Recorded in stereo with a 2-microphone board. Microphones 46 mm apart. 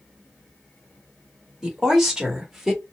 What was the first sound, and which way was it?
A woman speaking, 10° right (ahead or behind).